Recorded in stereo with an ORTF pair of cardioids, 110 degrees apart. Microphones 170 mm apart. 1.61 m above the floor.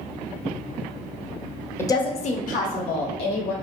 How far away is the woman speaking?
About 0.5 m.